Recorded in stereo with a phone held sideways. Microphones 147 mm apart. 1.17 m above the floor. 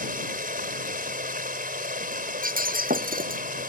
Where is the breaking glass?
75° right (ahead or behind).